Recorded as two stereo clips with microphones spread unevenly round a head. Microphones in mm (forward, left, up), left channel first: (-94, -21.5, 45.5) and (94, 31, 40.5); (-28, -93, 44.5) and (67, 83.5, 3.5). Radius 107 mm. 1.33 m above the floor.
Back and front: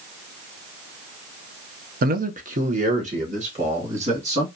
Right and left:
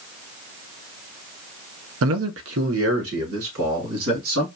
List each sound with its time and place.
2.0 s a man speaking: 60° left, 0.5 m; by 4.5 s 70° left, 2.5 m